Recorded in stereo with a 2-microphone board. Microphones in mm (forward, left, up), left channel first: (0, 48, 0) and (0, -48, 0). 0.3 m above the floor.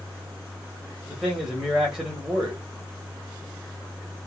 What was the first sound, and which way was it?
A man speaking, 5° right (ahead or behind).